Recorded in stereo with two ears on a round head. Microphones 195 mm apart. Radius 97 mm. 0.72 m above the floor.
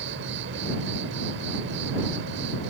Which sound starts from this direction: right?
An insect, at 0.0 s.